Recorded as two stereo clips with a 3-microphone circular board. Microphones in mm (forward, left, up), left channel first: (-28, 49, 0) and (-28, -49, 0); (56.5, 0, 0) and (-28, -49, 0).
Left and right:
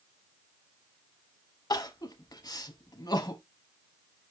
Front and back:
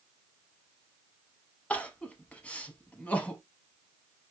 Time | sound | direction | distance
1.7 | crying | 100° left | 0.6 m